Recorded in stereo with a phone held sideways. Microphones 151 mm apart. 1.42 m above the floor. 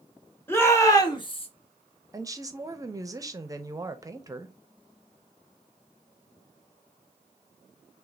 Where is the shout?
15° left (ahead or behind), 1.3 m; by 1.5 s 40° left (ahead or behind), 0.8 m.